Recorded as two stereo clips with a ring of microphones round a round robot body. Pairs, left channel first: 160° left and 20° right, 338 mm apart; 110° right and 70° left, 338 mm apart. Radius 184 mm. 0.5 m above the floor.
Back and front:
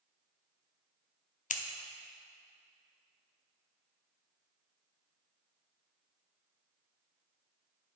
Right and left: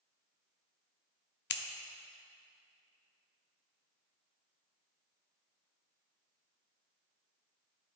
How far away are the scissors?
About 0.7 m.